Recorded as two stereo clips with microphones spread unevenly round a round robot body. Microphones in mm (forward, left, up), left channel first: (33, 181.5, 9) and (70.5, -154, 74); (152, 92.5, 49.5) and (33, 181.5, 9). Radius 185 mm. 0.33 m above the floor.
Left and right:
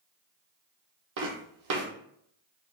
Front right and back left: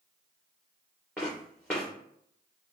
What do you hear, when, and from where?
1.2 s footsteps: 115° right, 0.7 m